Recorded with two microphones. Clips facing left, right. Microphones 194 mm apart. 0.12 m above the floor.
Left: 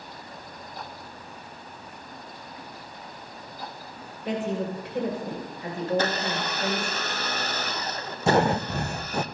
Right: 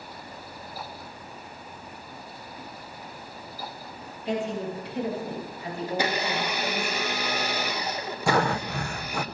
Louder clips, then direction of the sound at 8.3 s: Left 3 dB; 20° left (ahead or behind).